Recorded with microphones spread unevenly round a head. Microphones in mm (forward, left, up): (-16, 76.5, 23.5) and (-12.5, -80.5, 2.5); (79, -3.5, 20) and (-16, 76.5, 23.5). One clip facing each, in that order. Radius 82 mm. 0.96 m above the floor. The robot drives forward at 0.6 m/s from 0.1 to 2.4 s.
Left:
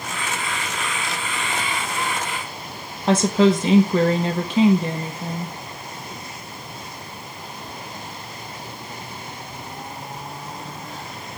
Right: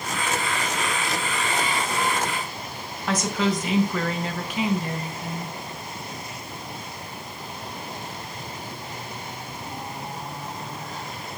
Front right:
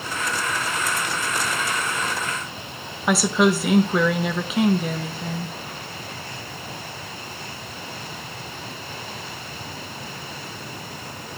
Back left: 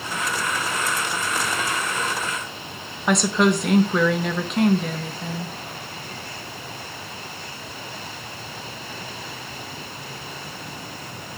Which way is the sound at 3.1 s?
40° left.